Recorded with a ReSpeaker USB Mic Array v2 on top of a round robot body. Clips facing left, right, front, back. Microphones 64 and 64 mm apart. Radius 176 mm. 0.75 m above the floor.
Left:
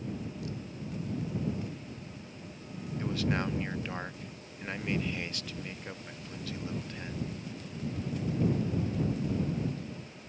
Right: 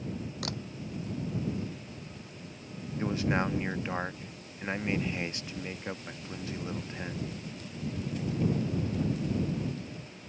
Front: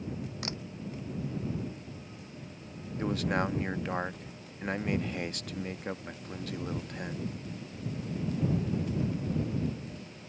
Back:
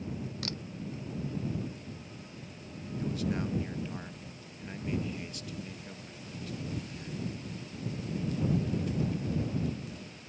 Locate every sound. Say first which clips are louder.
0.4 s a camera shutter: right 2 dB, front 2 dB; 70° right
3.0 s a man speaking: right 3 dB, front 4 dB; 25° right